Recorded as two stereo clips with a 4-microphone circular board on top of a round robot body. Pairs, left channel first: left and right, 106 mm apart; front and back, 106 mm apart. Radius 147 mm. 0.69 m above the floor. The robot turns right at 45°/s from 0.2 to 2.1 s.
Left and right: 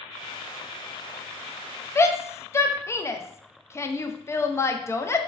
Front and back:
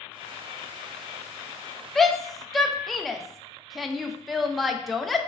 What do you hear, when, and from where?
1.9 s a shout: 80° left, 0.5 m; by 5.3 s 90° left, 0.5 m